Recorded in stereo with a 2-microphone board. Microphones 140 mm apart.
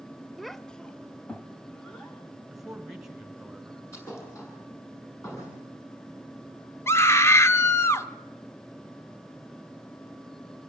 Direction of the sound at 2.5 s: 5° right (ahead or behind).